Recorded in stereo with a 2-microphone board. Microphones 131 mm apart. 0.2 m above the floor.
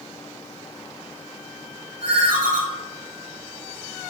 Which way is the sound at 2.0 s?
55° right (ahead or behind).